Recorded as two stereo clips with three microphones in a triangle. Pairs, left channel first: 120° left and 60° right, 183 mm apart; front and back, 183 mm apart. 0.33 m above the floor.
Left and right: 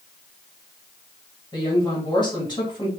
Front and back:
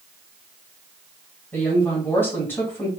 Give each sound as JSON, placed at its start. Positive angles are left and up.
{"t": 1.5, "sound": "a woman speaking", "azimuth_deg": 70, "distance_m": 1.7}